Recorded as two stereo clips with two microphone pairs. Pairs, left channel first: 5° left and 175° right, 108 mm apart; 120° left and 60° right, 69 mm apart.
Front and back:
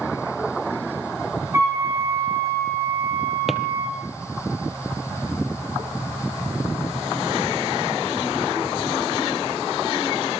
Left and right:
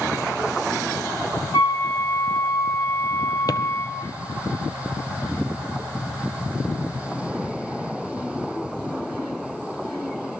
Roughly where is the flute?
Behind left.